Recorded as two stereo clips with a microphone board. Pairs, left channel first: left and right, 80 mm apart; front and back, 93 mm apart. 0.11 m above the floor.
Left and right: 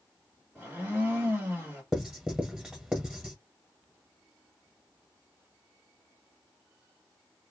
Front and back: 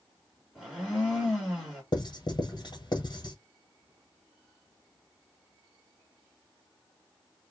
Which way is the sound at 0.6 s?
110° right.